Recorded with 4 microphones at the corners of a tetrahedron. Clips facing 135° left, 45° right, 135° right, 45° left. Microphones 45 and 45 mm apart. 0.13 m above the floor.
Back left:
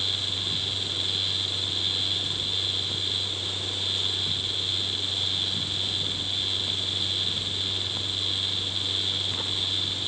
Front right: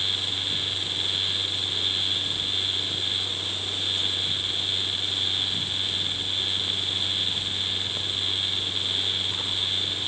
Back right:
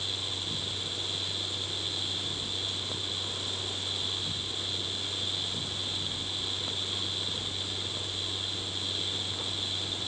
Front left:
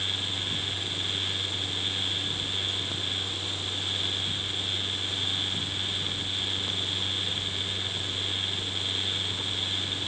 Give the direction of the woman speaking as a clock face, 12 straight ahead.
No woman speaking in this recording.